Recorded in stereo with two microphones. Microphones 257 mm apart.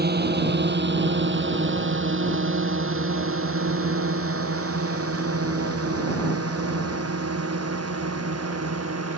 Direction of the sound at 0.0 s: 35° right (ahead or behind).